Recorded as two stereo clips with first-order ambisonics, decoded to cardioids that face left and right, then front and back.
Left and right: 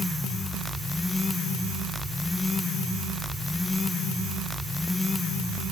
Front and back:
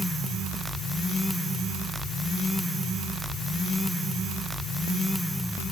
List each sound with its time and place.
Only background noise.